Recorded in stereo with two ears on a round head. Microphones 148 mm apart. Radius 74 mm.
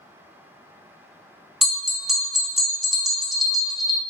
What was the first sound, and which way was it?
A bell, centre (ahead or behind).